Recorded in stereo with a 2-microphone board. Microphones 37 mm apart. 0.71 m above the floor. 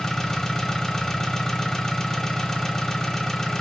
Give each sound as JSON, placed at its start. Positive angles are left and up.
{"t": 0.0, "sound": "an engine running", "side_deg": 10, "distance_m": 0.7}